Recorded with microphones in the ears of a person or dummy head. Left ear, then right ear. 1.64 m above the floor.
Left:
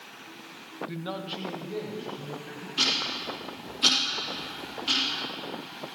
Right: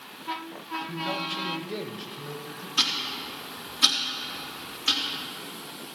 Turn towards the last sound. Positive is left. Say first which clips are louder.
# even
turn(degrees=-45)  # may be behind; listen again after turning